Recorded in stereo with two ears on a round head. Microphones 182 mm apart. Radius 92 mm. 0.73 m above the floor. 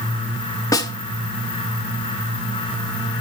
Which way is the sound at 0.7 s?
20° left (ahead or behind).